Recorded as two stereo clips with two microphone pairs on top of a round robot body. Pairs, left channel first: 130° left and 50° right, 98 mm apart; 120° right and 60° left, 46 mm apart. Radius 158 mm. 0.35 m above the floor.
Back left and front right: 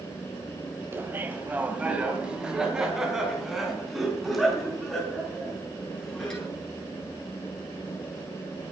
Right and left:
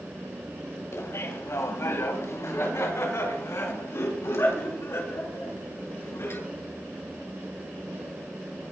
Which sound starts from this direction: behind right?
Laughter, at 0.9 s.